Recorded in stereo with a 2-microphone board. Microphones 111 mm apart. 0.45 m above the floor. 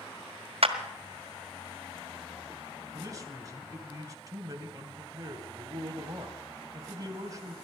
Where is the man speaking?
35° right (ahead or behind), 2.5 m.